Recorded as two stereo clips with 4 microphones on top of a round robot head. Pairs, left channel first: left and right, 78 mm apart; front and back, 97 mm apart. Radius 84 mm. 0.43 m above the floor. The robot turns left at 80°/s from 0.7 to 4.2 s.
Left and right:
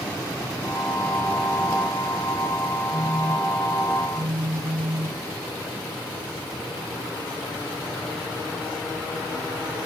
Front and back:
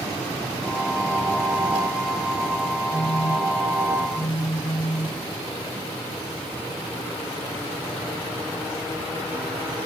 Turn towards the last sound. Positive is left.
turn(degrees=-50)